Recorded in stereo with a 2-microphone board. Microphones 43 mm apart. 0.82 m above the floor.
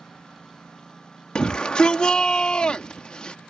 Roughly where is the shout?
Left.